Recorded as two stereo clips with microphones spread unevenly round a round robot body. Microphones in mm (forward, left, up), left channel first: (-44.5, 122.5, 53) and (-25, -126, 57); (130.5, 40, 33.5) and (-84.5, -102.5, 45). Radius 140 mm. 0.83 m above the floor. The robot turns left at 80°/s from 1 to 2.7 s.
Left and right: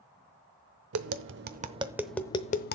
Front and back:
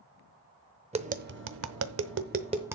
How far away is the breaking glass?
I don't hear breaking glass.